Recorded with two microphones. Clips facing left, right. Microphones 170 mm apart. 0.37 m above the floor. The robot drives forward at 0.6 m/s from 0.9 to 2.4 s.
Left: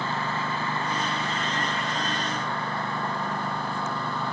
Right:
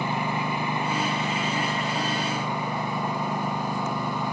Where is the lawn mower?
15° right (ahead or behind); by 4.3 s 10° right (ahead or behind).